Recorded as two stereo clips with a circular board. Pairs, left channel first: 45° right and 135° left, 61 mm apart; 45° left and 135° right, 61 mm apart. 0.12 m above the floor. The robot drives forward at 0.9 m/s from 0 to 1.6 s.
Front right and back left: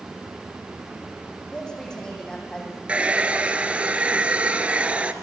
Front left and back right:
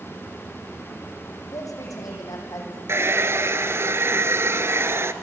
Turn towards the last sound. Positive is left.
turn(degrees=-160)